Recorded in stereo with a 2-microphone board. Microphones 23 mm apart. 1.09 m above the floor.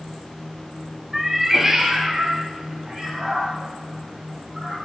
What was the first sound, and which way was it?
A cat meowing, 10° right (ahead or behind).